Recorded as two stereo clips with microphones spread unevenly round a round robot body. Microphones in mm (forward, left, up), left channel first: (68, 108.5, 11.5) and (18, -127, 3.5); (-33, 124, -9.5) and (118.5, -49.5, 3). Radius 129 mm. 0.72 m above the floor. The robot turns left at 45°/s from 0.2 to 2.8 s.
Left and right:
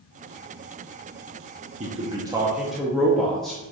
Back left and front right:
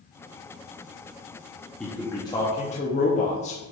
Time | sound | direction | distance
1.8 | a man speaking | 145° right | 0.9 m